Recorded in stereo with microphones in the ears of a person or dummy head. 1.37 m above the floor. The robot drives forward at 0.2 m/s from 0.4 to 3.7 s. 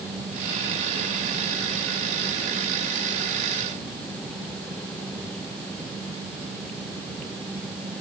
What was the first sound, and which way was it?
Only background noise.